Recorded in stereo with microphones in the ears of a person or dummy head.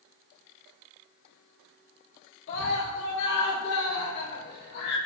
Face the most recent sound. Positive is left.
turn(degrees=65)  # may be behind; listen again after turning